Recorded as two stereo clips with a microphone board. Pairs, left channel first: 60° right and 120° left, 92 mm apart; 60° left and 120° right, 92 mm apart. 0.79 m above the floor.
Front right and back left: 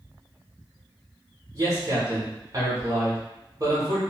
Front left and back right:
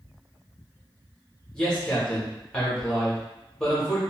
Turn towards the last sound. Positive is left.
turn(degrees=135)